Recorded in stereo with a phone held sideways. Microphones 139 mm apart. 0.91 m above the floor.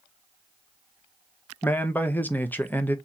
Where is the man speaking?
15° left (ahead or behind), 0.8 m.